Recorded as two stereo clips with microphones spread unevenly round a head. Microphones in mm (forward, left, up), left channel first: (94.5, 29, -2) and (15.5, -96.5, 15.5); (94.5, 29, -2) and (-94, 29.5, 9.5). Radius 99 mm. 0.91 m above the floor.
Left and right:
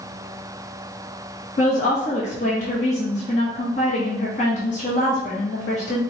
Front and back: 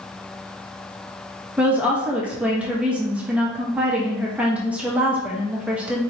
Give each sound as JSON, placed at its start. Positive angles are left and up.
{"t": 1.6, "sound": "a woman speaking", "azimuth_deg": 95, "distance_m": 0.8}